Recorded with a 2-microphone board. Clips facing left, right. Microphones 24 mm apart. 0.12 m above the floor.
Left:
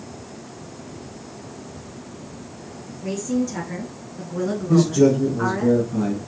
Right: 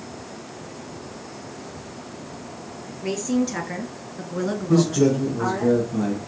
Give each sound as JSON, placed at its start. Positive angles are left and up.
{"t": 3.0, "sound": "a woman speaking", "side_deg": -40, "distance_m": 1.7}
{"t": 4.7, "sound": "a man speaking", "side_deg": 0, "distance_m": 1.4}